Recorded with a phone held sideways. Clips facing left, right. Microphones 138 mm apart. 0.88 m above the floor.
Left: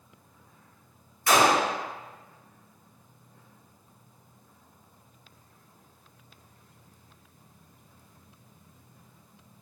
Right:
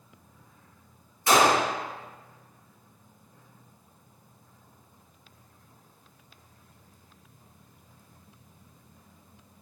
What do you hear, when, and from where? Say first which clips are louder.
1.3 s a gunshot: right 1 dB; 25° right (ahead or behind), 0.6 m